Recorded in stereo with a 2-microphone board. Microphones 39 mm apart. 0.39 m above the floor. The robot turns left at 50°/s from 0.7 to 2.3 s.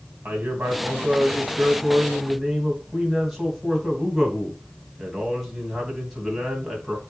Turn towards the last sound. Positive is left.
turn(degrees=-170)